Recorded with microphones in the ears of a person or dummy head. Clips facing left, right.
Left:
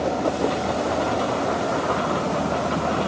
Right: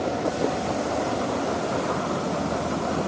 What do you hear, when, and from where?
Only background noise.